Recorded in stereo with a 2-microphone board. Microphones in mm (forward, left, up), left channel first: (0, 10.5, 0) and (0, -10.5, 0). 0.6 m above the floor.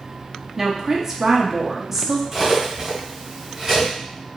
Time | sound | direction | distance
0.6 | a woman speaking | 20° right (ahead or behind) | 0.6 m
2.3 | cutlery clinking | 20° right (ahead or behind) | 1.8 m